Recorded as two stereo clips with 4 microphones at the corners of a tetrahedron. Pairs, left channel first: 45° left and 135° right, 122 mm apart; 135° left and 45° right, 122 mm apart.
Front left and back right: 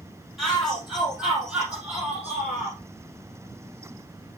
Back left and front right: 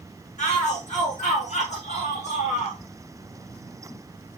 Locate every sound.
0.4 s a shout: 135° left, 5.5 m; by 2.8 s 150° left, 6 m